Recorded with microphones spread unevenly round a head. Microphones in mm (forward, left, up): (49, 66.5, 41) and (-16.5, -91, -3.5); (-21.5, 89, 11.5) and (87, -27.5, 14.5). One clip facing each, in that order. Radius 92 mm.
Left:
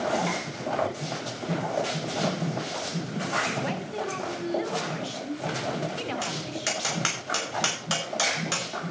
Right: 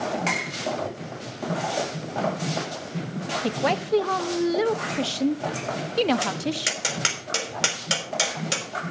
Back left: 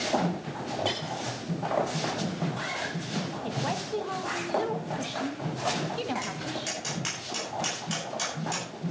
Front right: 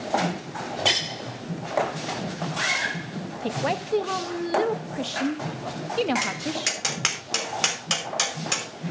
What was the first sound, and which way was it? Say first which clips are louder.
A woman speaking: right 7 dB, front right 5 dB; 100° right.